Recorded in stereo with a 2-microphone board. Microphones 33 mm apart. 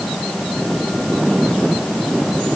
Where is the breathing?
I don't hear breathing.